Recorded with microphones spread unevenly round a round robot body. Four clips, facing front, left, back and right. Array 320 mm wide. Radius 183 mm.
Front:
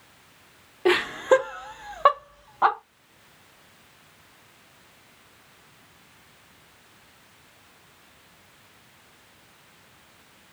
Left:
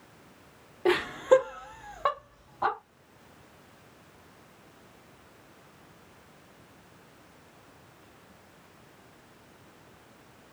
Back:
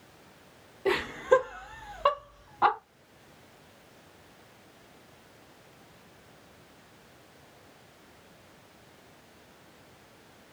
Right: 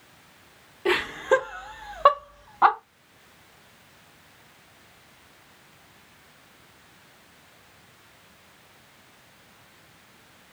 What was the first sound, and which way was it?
Laughter, 35° left.